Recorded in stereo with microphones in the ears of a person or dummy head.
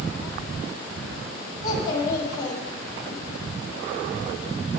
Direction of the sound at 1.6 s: 20° left (ahead or behind).